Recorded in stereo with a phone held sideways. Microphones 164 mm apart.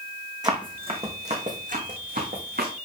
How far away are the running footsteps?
About 2.5 m.